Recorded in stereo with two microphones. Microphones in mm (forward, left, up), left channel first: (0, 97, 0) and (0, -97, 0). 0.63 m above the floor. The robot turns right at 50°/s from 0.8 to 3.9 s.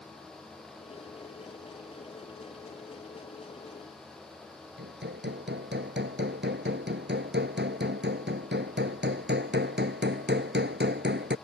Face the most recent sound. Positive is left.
turn(degrees=-65)  # may be behind; listen again after turning